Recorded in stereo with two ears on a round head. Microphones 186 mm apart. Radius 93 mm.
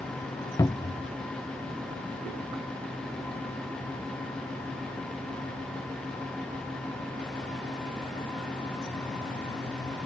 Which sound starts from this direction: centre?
A cupboard door, at 0.6 s.